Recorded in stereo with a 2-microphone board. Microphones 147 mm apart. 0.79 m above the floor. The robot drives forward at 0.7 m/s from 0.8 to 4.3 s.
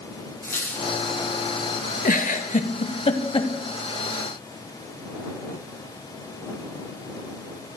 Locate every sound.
0.4 s a squeak: 20° left (ahead or behind), 4 m
2.0 s a giggle: 65° left (ahead or behind), 0.9 m; by 3.5 s 35° left (ahead or behind), 1.4 m